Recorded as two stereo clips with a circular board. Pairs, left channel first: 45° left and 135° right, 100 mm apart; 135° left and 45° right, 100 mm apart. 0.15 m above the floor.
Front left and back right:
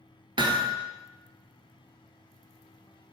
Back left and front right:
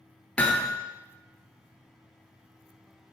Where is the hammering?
155° right, 0.9 m.